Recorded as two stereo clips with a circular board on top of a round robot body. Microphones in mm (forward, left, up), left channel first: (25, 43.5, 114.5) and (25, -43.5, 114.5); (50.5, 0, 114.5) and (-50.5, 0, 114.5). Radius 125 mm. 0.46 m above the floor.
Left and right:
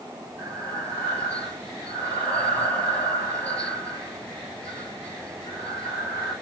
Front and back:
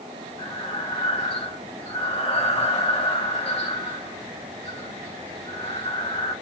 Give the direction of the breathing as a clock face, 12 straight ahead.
12 o'clock.